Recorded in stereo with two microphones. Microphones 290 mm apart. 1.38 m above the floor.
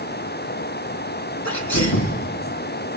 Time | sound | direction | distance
1.4 | a sneeze | 70° left (ahead or behind) | 3 m